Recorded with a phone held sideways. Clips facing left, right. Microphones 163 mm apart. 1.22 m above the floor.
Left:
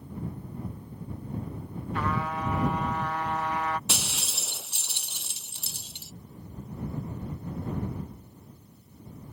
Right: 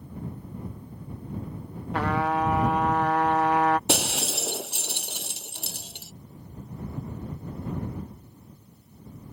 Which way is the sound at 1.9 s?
75° right (ahead or behind).